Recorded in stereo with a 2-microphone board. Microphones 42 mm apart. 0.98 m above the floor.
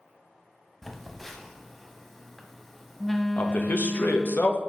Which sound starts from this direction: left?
A man speaking, at 3.4 s.